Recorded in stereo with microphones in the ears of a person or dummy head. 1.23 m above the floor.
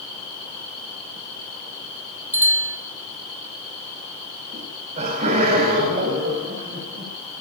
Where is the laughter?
35° right (ahead or behind), 6.5 m.